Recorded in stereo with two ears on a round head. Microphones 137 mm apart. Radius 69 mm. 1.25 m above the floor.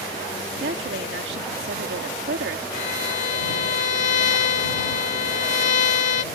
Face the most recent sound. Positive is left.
turn(degrees=55)  # may be behind; listen again after turning